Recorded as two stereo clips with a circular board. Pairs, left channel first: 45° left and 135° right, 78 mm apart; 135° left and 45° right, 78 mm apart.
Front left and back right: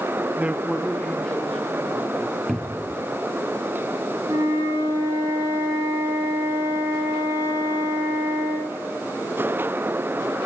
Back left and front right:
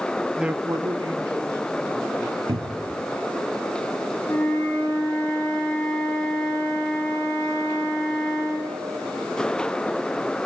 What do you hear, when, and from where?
0.4 s a man speaking: 135° right, 0.5 m; by 2.4 s 25° right, 3 m
2.5 s a cupboard door: 40° right, 0.5 m
4.3 s a flute: 160° right, 7 m